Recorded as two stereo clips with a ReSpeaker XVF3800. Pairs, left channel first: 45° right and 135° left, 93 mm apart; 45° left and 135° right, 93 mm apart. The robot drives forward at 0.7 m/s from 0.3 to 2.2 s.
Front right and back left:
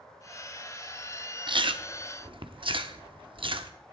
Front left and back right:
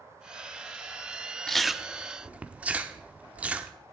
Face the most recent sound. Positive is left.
turn(degrees=150)